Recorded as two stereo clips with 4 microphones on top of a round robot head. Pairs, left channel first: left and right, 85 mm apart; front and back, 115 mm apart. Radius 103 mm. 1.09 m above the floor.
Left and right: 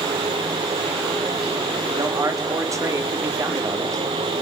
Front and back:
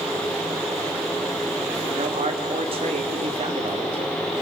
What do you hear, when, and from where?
2.0 s a man speaking: 140° right, 3 m